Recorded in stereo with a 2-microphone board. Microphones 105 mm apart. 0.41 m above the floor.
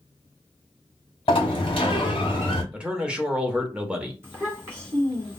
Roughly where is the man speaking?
Centre.